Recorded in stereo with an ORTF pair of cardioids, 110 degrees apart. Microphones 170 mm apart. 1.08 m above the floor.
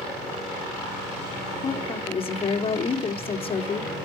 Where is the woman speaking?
35° left, 3.5 m.